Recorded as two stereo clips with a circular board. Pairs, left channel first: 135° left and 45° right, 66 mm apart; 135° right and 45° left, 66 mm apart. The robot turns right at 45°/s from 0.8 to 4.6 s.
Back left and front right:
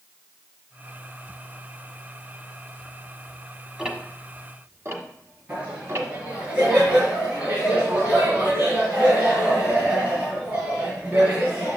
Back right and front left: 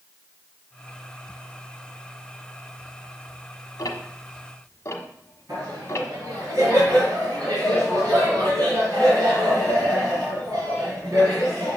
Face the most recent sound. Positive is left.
turn(degrees=15)